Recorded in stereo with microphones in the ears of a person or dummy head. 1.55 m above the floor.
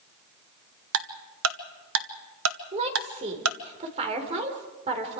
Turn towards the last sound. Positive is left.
turn(degrees=-35)  # may be behind; listen again after turning